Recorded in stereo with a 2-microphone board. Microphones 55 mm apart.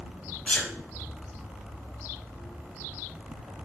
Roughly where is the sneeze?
Left.